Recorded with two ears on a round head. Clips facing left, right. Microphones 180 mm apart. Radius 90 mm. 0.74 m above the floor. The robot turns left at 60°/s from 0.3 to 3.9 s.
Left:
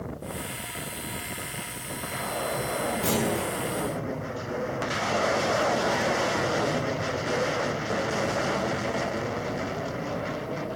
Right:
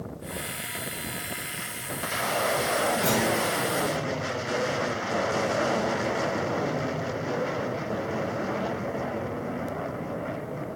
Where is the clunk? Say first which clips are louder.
Right 1 dB; 5° left (ahead or behind), 5.5 m; by 3.5 s 30° left (ahead or behind), 5.5 m.